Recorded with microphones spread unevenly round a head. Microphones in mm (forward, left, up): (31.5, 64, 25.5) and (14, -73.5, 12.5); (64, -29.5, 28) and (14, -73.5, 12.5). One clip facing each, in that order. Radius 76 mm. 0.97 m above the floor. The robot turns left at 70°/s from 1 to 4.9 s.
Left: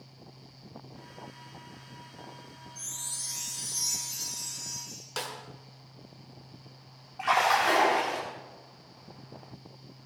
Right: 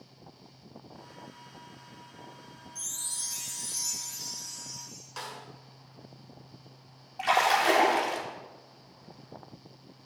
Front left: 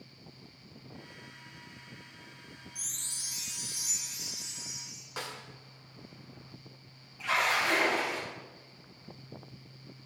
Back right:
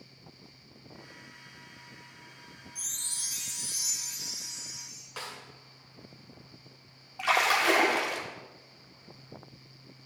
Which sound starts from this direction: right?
A chime, at 2.8 s.